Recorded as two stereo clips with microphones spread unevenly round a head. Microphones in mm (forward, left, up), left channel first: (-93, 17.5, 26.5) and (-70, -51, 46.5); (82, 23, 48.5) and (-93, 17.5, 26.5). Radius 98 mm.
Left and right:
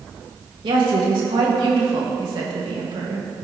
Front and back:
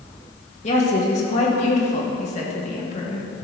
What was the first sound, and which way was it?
A woman speaking, 55° right.